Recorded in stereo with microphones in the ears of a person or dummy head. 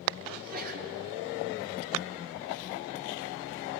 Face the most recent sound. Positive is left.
turn(degrees=-50)  # may be behind; listen again after turning